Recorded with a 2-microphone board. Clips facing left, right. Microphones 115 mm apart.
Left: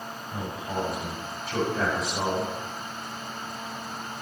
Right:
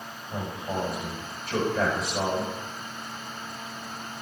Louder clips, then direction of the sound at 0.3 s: Right 1 dB; 50° right (ahead or behind).